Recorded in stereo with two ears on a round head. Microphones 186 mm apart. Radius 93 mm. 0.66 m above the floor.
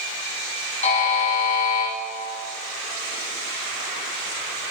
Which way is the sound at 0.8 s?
35° left (ahead or behind).